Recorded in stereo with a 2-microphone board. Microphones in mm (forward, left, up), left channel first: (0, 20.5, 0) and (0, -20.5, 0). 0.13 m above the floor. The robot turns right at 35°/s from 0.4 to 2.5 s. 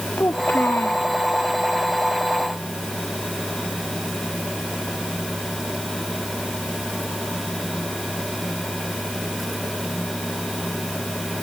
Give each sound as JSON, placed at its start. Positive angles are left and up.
{"t": 0.2, "sound": "a child speaking", "side_deg": 60}